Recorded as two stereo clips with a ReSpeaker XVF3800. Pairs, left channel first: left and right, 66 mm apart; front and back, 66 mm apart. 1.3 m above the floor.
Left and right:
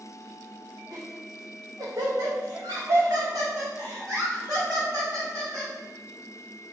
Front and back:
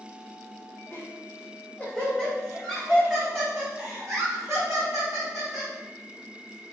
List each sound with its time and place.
0.9 s laughter: 55° right, 1.2 m; by 5.7 s 140° right, 2.5 m